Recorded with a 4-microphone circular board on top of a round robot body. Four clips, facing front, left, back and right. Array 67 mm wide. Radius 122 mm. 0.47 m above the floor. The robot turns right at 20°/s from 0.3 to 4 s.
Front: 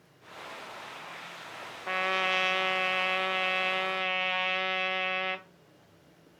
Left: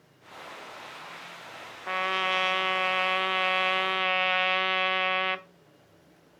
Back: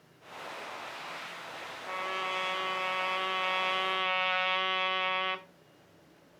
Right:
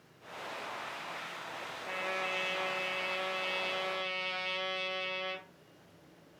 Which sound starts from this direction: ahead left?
A trumpet, at 1.9 s.